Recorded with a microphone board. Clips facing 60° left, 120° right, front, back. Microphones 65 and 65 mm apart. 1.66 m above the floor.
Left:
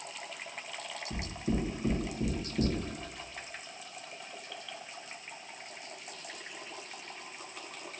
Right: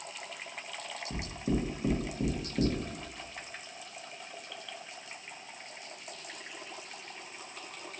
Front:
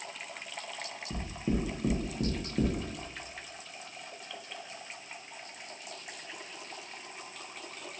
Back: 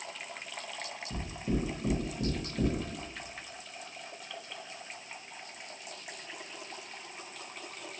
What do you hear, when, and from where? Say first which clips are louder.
1.1 s knocking: right 1 dB, front 1 dB; 50° right, 1.2 m